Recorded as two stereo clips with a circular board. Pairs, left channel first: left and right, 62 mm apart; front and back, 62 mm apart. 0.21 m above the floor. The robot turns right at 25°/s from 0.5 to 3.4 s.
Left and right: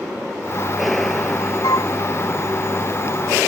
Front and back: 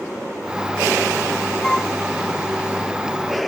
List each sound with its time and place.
1.6 s a flute: 85° left; by 1.9 s 90° left